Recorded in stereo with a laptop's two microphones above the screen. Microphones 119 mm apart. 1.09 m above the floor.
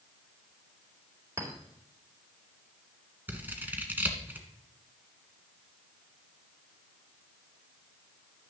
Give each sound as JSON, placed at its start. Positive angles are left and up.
{"t": 1.4, "sound": "a clink", "side_deg": -30, "distance_m": 2.5}
{"t": 3.3, "sound": "scissors", "side_deg": -15, "distance_m": 1.9}